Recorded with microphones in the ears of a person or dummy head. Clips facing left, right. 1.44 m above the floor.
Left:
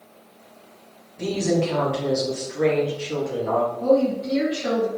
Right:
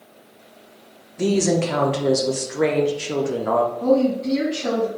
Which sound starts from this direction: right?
A woman speaking, at 1.2 s.